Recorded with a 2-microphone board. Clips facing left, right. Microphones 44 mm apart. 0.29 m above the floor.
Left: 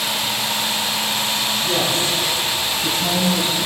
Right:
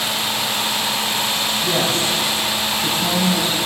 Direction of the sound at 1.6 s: 55° right (ahead or behind).